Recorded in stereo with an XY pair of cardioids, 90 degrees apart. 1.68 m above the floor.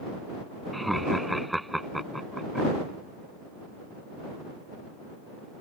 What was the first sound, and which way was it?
Laughter, 5° right.